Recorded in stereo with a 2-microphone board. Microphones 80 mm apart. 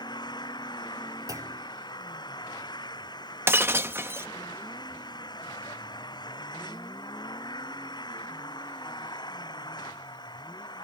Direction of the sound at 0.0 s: 60° left (ahead or behind).